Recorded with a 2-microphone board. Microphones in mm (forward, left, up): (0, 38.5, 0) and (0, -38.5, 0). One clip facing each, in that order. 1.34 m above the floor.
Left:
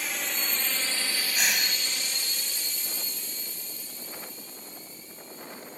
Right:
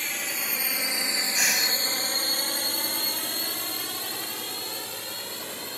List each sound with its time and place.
0.0 s a drone: 5° left (ahead or behind); by 5.8 s 75° right (ahead or behind)
1.4 s breathing: 5° right (ahead or behind)